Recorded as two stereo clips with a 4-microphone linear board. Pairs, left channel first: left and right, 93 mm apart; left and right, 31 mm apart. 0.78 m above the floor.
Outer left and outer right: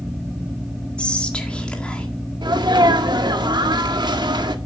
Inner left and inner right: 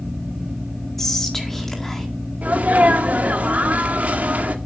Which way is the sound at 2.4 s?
50° right (ahead or behind).